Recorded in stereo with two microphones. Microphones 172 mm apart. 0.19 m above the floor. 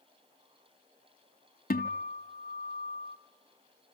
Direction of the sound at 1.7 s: 55° left (ahead or behind).